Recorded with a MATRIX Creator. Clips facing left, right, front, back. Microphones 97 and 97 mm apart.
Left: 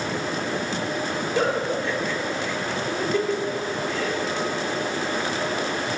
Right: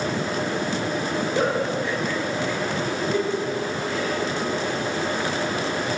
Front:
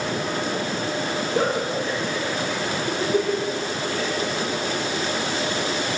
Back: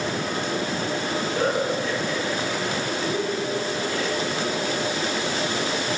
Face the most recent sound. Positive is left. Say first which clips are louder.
# left 1 dB, front 1 dB
turn(degrees=-15)